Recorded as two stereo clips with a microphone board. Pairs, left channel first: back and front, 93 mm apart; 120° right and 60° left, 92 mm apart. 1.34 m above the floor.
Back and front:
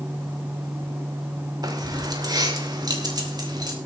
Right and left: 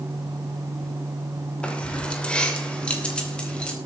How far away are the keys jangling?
About 2.5 m.